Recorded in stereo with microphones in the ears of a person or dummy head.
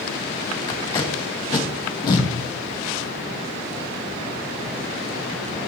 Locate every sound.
0.7 s tape being pulled: 20° left (ahead or behind), 1.2 m